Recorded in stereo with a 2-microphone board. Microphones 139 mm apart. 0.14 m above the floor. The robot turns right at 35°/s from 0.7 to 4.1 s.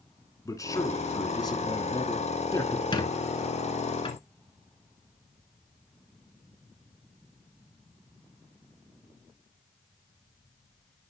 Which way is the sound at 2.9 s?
35° left (ahead or behind).